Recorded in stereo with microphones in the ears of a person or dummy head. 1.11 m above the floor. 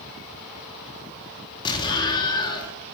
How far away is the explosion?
About 1.3 m.